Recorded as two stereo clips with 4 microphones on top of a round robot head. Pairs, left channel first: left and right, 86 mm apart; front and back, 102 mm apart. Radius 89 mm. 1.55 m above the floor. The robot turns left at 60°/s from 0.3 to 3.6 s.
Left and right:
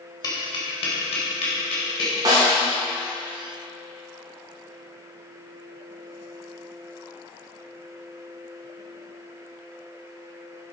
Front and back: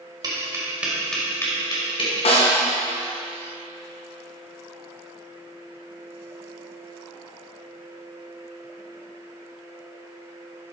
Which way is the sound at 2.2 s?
35° right.